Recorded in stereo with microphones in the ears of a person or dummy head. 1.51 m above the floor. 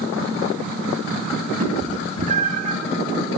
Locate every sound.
1.6 s a cat meowing: 45° right (ahead or behind), 4.5 m